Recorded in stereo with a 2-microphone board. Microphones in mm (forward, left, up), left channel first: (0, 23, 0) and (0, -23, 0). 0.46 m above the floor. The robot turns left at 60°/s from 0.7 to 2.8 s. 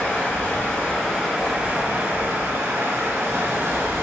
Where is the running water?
25° left, 1.7 m; by 4.0 s 100° right, 1.7 m.